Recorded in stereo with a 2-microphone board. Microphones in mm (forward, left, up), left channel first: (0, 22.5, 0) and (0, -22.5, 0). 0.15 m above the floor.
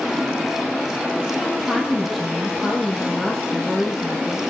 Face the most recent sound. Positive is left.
turn(degrees=5)  # may be behind; listen again after turning